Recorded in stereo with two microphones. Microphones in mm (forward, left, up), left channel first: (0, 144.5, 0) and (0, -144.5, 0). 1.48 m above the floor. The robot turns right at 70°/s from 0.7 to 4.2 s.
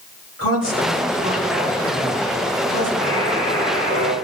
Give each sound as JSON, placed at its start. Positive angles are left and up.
{"t": 0.4, "sound": "a woman speaking", "azimuth_deg": -60, "distance_m": 2.5}
{"t": 3.0, "sound": "a buzzer", "azimuth_deg": 40, "distance_m": 4.0}